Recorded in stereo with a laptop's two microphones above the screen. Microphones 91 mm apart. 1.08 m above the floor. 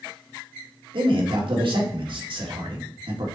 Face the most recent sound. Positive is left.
turn(degrees=-70)  # may be behind; listen again after turning